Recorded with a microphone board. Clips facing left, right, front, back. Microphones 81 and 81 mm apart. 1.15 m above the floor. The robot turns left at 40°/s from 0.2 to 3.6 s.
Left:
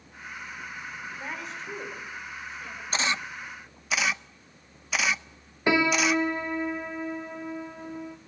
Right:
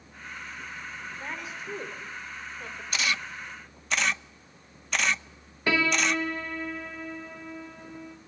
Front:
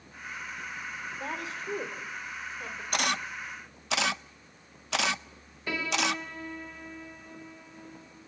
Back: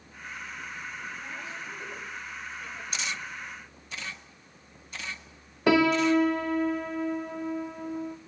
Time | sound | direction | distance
1.2 | a woman speaking | 10° left | 3.5 m
2.9 | a camera shutter | 35° left | 0.5 m
5.7 | a piano | 160° left | 1.0 m